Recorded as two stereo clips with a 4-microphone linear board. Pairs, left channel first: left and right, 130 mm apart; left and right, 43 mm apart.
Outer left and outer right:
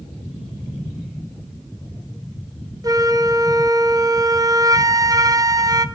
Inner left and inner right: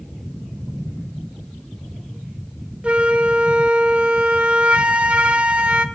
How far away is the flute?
About 0.6 m.